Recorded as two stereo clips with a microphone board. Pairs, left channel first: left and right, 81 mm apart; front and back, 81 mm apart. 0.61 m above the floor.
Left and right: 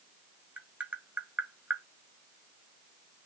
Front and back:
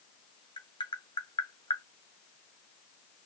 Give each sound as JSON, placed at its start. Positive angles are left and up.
{"t": 0.6, "sound": "tapping", "azimuth_deg": -20, "distance_m": 0.7}